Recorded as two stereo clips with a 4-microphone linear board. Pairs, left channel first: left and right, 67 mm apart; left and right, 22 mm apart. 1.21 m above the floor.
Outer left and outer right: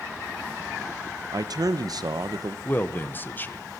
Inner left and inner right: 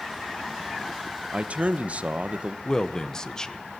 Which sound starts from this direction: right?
A man speaking, at 1.3 s.